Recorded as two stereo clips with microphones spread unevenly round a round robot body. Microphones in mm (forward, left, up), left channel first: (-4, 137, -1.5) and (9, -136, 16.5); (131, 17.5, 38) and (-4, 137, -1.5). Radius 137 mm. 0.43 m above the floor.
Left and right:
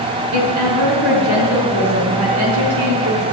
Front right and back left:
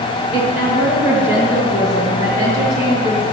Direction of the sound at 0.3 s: 105° right.